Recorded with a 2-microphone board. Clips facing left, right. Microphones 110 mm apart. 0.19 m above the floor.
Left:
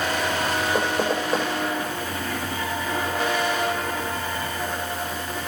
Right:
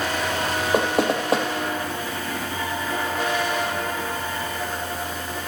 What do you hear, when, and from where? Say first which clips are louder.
0.7 s knocking: right 6 dB; 70° right (ahead or behind), 4.5 m